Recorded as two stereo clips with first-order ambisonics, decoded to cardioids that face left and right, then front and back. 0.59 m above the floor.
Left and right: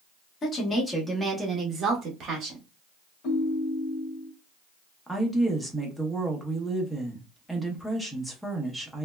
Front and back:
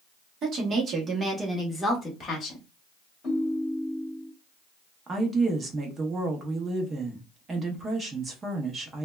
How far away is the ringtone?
About 1.2 m.